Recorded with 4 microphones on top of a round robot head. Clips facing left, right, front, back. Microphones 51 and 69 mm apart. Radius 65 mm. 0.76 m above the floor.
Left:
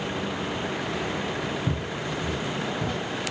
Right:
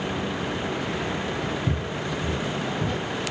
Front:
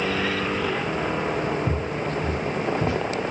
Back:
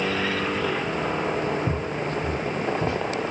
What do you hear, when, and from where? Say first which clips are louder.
1.7 s footsteps: right 1 dB, even; 150° left, 0.7 m; by 3.0 s 25° right, 1.3 m